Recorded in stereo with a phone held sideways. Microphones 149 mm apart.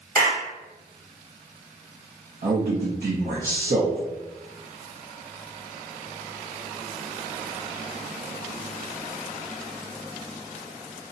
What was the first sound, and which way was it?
A clap, 75° right (ahead or behind).